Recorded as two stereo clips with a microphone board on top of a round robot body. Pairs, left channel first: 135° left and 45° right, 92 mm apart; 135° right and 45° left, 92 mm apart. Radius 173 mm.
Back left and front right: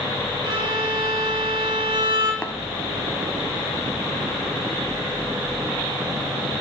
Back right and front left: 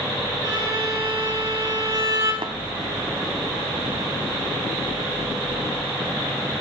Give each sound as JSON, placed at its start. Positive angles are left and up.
{"t": 0.4, "sound": "a violin", "azimuth_deg": 0, "distance_m": 5.0}
{"t": 2.4, "sound": "tapping", "azimuth_deg": 60, "distance_m": 1.6}